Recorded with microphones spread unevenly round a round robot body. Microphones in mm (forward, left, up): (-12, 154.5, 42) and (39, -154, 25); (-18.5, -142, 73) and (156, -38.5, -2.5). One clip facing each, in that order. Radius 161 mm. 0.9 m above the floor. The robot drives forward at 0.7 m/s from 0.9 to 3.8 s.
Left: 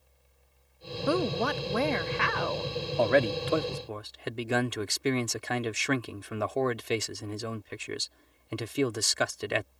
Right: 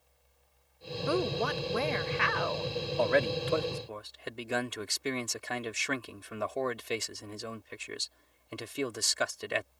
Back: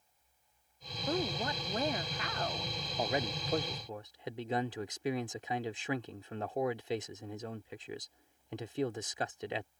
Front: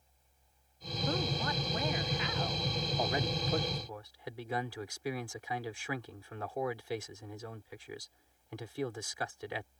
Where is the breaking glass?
I don't hear breaking glass.